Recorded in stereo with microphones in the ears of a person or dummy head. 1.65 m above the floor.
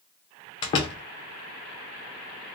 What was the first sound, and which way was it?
A door slam, 25° left (ahead or behind).